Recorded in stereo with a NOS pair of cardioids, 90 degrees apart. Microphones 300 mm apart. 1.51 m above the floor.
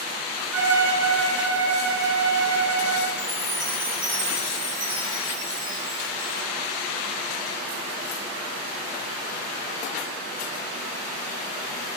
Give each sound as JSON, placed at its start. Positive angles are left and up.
{"t": 0.5, "sound": "a violin", "azimuth_deg": -50, "distance_m": 0.6}
{"t": 3.2, "sound": "a chime", "azimuth_deg": -60, "distance_m": 1.8}